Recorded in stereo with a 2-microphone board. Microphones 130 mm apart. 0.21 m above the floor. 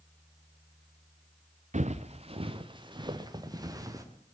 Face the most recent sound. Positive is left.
turn(degrees=-25)  # may be behind; listen again after turning